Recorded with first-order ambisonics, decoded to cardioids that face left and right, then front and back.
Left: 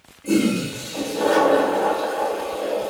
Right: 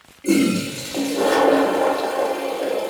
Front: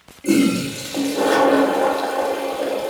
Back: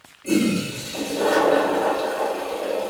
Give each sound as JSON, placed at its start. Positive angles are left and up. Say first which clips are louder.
{"t": 0.2, "sound": "a toilet flushing", "louder": "right 2 dB, front 4 dB", "azimuth_deg": -25, "distance_m": 1.0}